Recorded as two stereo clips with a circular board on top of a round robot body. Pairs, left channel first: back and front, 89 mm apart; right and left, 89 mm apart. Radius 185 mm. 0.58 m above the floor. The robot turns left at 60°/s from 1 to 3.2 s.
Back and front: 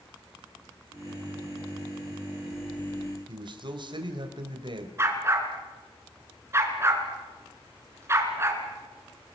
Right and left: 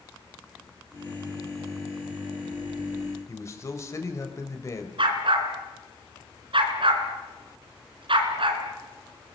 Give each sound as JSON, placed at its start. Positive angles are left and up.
{"t": 3.3, "sound": "a man speaking", "azimuth_deg": -30, "distance_m": 3.5}
{"t": 5.0, "sound": "a dog barking", "azimuth_deg": 65, "distance_m": 2.5}